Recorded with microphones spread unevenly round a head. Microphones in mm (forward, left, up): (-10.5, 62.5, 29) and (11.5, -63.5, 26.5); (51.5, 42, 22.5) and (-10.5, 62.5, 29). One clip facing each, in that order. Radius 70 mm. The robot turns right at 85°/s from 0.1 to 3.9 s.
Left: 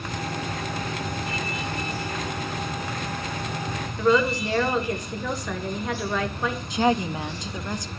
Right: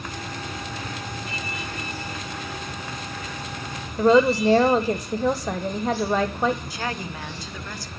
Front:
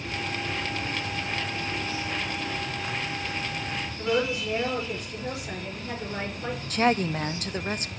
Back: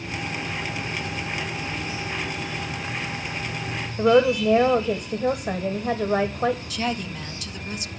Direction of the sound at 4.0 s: 140° right.